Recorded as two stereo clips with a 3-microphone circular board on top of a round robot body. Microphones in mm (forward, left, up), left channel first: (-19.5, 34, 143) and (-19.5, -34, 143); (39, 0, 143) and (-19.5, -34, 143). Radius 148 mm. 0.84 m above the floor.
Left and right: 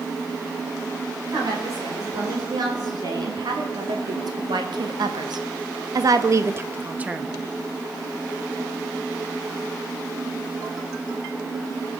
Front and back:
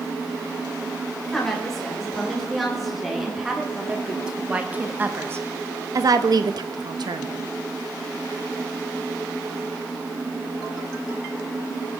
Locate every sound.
1.3 s a woman speaking: 55° right, 4 m; by 7.4 s 170° right, 1.4 m